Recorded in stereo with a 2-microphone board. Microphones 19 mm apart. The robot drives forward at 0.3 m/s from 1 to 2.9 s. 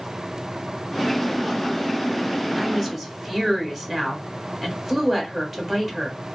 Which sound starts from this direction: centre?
A woman speaking, at 2.6 s.